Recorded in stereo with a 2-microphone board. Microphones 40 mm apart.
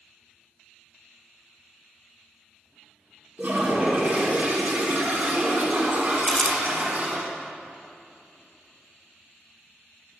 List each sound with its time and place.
3.4 s a toilet flushing: 40° right (ahead or behind), 1.6 m
6.2 s crumpling: 15° left (ahead or behind), 0.6 m